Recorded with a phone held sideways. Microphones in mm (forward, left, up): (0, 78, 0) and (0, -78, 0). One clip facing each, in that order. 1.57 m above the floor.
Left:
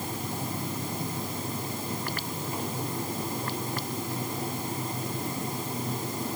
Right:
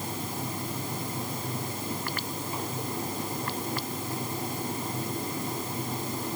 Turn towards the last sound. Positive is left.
No sound to turn to.